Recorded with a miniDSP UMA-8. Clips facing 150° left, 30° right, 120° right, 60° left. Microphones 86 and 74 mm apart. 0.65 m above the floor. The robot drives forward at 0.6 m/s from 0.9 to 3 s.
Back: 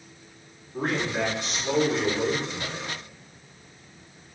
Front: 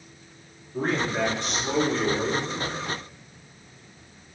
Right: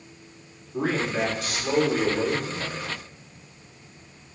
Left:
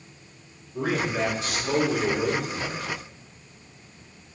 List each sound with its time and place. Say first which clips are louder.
0.7 s a man speaking: front 1 dB, right 1 dB; 120° right, 1.9 m; by 2.9 s 145° right, 2.5 m